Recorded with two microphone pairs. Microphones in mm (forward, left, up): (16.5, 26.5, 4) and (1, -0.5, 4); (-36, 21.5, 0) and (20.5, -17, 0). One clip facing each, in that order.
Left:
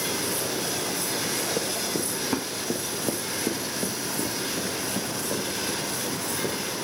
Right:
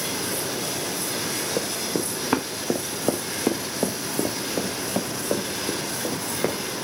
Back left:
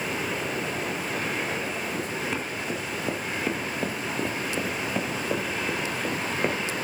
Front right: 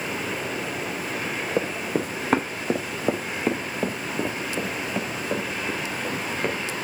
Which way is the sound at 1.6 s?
55° right.